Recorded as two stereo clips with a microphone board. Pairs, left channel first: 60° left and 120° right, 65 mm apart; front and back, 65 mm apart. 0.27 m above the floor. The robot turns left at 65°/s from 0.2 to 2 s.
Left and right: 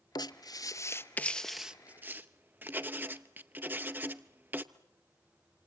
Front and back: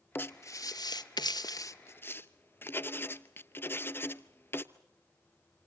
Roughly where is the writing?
Ahead left.